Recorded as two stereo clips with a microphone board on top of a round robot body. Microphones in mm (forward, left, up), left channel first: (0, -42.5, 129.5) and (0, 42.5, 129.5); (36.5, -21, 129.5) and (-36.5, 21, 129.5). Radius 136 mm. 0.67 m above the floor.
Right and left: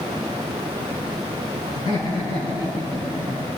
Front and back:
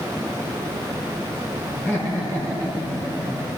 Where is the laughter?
100° right, 8 m; by 3.5 s 110° right, 7.5 m.